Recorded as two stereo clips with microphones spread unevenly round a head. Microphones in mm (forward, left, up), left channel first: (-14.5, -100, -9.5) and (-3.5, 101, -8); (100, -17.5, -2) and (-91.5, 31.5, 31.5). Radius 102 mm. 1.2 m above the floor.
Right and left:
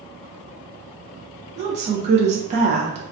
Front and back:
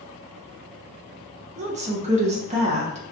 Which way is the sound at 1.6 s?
120° left.